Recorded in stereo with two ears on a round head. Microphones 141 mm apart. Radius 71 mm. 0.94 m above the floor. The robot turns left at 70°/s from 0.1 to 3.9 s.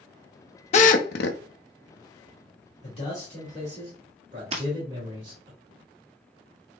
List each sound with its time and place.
0.7 s a drill: 135° left, 0.6 m; by 1.4 s 90° left, 0.6 m
2.8 s a man speaking: 45° left, 1.9 m; by 5.5 s 30° right, 1.9 m
4.5 s breaking glass: 40° right (ahead or behind), 1.3 m